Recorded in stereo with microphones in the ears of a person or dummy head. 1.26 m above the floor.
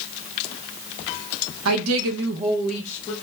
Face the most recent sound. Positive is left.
turn(degrees=25)  # may be behind; listen again after turning